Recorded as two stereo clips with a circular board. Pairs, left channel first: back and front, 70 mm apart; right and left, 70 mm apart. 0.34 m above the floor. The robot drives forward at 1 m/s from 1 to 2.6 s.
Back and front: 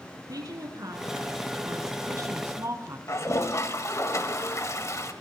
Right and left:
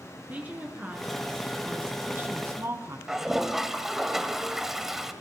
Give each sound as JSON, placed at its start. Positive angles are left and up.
{"t": 0.3, "sound": "a woman speaking", "azimuth_deg": 25, "distance_m": 3.5}
{"t": 3.1, "sound": "a toilet flushing", "azimuth_deg": 175, "distance_m": 1.6}